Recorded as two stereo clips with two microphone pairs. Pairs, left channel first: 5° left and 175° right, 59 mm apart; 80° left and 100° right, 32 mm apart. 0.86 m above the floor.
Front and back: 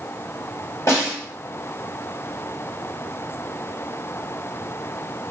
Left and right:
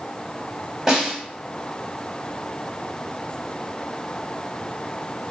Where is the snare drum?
25° right, 1.6 m.